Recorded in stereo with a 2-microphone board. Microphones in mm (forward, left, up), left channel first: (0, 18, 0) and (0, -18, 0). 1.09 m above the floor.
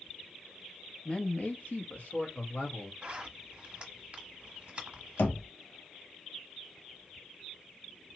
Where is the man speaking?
25° left (ahead or behind), 0.6 m; by 2.9 s 60° left (ahead or behind), 1.6 m.